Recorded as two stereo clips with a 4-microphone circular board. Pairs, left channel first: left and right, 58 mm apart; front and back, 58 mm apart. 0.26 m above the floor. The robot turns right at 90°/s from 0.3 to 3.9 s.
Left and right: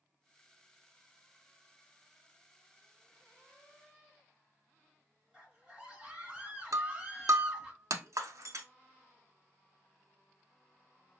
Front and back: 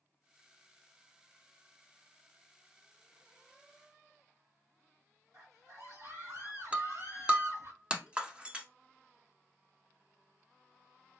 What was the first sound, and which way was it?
A scream, 165° right.